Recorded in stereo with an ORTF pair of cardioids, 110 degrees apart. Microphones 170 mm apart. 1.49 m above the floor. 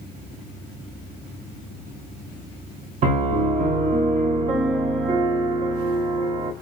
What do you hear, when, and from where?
3.0 s a piano: 45° right, 0.8 m